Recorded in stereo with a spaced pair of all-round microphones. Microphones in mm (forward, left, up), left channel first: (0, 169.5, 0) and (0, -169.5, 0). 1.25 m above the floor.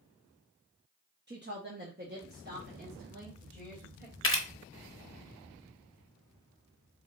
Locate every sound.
1.3 s a woman speaking: 30° right (ahead or behind), 0.7 m
4.2 s a camera shutter: 35° left (ahead or behind), 0.8 m